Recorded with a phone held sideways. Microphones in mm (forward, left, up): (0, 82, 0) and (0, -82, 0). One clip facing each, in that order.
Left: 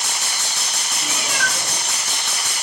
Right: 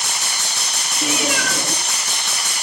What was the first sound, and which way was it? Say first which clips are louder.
A cat meowing: right 7 dB; 80° right.